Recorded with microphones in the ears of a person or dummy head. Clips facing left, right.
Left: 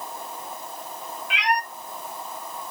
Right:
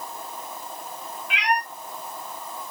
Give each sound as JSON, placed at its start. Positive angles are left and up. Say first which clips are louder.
{"t": 1.3, "sound": "a cat meowing", "louder": "even", "side_deg": -45, "distance_m": 2.5}